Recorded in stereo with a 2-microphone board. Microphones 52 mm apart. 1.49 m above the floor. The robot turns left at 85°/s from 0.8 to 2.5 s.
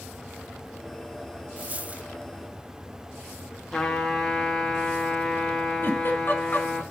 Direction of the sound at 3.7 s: 10° left (ahead or behind).